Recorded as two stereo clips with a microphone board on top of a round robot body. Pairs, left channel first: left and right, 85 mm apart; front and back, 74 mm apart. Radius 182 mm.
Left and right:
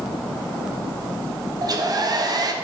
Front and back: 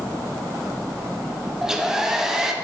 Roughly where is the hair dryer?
Right.